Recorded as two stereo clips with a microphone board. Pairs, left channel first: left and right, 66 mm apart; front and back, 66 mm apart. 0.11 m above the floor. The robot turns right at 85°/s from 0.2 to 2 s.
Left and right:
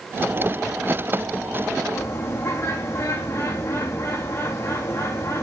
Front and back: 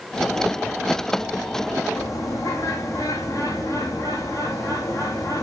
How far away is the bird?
About 2.5 m.